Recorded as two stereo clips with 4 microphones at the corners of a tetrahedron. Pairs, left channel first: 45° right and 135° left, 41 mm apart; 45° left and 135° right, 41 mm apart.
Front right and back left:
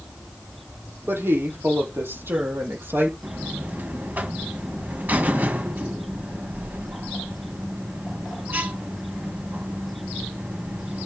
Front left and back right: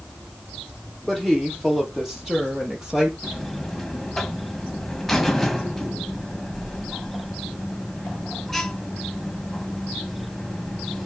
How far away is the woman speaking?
About 7.5 m.